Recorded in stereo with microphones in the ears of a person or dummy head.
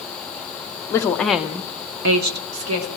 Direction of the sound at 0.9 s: 15° left (ahead or behind).